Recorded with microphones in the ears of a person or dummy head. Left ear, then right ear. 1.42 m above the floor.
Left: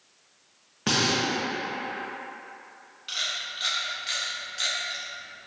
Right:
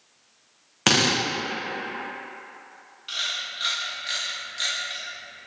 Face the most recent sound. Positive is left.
turn(degrees=5)  # may be behind; listen again after turning